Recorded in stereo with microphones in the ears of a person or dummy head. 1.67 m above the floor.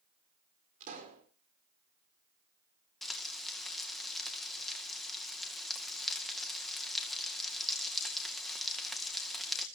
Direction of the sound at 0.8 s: 50° right (ahead or behind).